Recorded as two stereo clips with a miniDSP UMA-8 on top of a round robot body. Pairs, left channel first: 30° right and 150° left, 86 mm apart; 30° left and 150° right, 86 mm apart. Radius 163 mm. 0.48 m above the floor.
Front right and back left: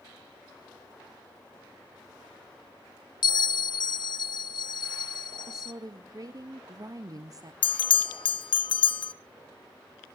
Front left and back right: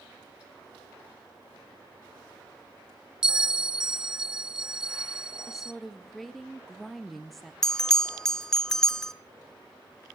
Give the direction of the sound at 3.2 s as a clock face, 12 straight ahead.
2 o'clock.